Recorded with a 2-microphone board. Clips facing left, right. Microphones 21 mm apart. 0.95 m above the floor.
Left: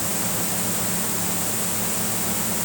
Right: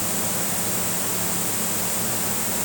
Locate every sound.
Only background noise.